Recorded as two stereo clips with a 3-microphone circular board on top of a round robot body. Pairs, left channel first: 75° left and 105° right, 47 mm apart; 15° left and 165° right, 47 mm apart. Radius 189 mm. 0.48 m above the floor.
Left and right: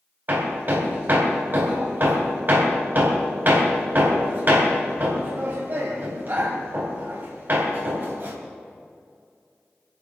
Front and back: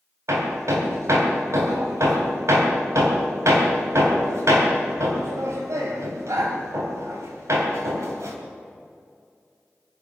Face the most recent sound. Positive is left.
turn(degrees=-155)